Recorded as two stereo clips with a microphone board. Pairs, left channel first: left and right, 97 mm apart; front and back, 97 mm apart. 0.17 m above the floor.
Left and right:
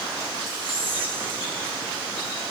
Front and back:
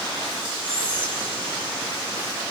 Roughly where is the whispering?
Ahead right.